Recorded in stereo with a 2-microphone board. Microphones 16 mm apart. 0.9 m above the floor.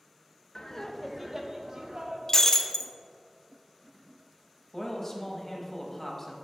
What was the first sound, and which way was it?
Laughter, 40° left (ahead or behind).